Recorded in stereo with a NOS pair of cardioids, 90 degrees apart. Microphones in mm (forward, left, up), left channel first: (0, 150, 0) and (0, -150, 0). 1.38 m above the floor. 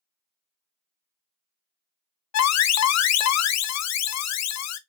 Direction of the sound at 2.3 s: 65° left.